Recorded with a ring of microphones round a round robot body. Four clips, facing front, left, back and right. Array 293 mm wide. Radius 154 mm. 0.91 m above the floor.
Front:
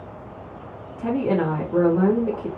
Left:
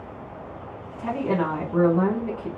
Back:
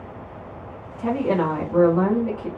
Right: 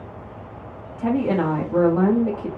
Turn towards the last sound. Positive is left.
turn(degrees=-90)